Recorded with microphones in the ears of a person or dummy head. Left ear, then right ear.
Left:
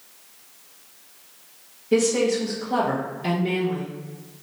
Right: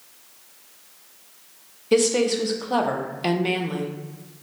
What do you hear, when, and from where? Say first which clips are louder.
1.9 s a woman speaking: right 1 dB; 40° right (ahead or behind), 0.6 m